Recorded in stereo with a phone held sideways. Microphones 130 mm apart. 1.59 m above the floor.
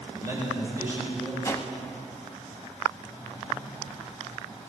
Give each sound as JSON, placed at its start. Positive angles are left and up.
{"t": 0.1, "sound": "a man speaking", "side_deg": -25, "distance_m": 6.0}
{"t": 1.4, "sound": "a whoosh", "side_deg": 20, "distance_m": 1.0}